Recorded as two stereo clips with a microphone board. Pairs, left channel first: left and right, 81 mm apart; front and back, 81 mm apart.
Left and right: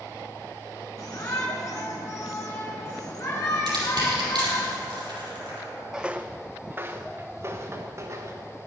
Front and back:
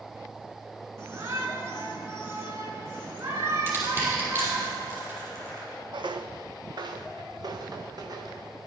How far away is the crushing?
About 5 m.